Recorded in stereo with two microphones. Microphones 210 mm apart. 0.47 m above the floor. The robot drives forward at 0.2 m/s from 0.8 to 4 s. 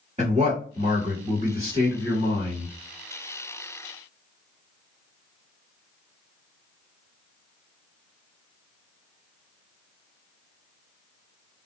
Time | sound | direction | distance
0.2 | a man speaking | 35° right (ahead or behind) | 1.7 m